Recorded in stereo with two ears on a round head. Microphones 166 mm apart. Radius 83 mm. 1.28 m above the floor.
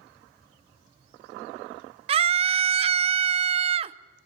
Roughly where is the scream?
Right.